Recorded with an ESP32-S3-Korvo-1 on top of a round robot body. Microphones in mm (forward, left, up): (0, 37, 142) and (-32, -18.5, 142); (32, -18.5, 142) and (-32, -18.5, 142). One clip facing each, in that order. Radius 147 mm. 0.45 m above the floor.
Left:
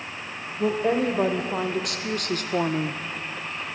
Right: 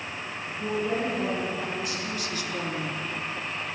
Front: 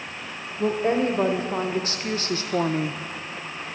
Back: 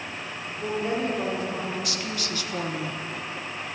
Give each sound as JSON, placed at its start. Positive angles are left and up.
{"t": 0.6, "sound": "a woman speaking", "azimuth_deg": 50, "distance_m": 2.5}